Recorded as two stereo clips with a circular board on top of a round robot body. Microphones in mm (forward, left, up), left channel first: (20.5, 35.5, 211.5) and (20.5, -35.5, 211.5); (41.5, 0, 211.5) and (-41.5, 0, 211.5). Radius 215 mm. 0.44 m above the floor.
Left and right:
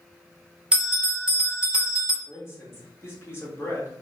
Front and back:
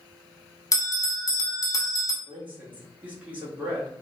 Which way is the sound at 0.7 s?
15° right.